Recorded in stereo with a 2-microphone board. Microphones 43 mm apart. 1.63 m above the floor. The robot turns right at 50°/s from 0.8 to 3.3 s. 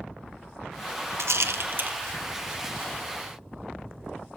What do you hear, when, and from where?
1.2 s a rattle: 80° right, 0.9 m; by 1.9 s 40° right (ahead or behind), 0.9 m